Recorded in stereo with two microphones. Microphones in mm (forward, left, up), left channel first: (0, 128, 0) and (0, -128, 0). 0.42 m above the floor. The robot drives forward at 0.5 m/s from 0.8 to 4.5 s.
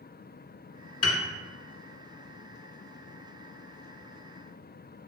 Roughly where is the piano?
Left.